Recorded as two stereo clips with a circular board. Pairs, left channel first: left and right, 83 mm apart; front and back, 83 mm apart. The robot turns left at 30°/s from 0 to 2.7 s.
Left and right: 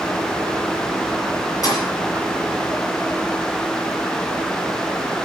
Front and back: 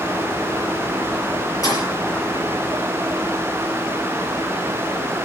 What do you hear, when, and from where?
1.6 s a thud: 45° left, 6 m; by 1.9 s 40° left, 6 m